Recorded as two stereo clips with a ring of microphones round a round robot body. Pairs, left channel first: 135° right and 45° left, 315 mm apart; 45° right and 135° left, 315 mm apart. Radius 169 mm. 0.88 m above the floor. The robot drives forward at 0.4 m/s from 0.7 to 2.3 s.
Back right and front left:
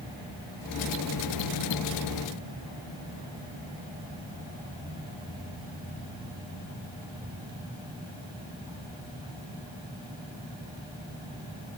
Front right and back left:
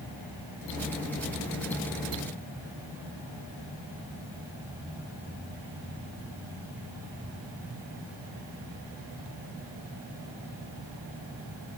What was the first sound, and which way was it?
Only background noise.